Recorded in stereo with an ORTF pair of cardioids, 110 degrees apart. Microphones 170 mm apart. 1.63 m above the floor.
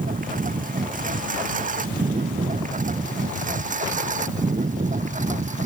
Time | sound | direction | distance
0.0 | a lawn mower | 55° right | ?